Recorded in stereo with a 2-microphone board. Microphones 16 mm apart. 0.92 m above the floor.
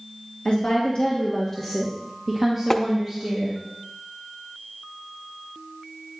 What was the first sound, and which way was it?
A woman speaking, 60° left (ahead or behind).